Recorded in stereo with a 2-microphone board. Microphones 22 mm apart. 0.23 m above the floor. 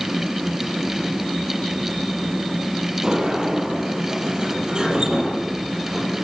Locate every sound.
3.0 s a sliding door: 35° right (ahead or behind), 6.5 m